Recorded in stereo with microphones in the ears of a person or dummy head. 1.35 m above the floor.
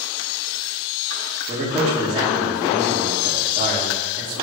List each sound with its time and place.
1.5 s a man speaking: 30° right (ahead or behind), 2 m